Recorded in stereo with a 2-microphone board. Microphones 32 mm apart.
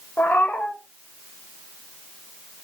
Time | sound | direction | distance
0.2 | a cat meowing | 70° left (ahead or behind) | 0.7 m